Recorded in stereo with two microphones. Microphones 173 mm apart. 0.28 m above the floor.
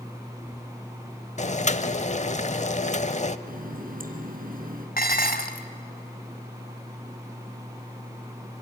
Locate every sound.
1.4 s boiling: 40° left (ahead or behind), 0.8 m
3.5 s a running tap: 55° right (ahead or behind), 2 m
5.0 s dishes clattering: 55° left (ahead or behind), 1.4 m